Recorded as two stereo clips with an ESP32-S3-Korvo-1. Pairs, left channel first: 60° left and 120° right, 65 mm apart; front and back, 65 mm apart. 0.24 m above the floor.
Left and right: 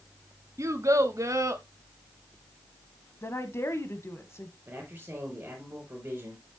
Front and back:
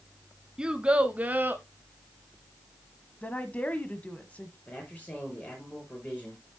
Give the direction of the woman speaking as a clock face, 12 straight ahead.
10 o'clock.